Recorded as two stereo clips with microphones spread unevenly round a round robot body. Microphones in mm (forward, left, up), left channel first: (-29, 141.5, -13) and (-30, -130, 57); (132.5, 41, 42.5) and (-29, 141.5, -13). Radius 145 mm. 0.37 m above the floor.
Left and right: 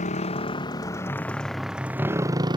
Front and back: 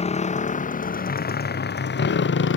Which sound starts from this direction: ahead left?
A motorcycle, at 0.0 s.